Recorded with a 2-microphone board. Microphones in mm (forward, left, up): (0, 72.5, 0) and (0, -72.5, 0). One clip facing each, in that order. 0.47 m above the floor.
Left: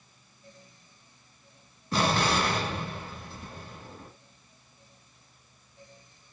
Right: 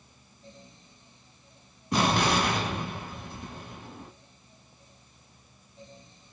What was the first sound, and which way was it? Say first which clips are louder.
An explosion: right 1 dB; 20° right (ahead or behind).